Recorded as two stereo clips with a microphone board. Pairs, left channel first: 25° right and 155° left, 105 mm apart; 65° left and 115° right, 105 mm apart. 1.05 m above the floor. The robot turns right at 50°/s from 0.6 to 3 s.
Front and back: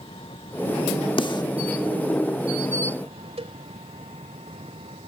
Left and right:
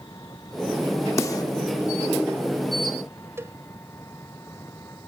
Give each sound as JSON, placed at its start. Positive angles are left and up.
{"t": 0.0, "sound": "an engine running", "azimuth_deg": 10}
{"t": 1.2, "sound": "a snare drum", "azimuth_deg": 5}
{"t": 3.4, "sound": "a cowbell", "azimuth_deg": 180}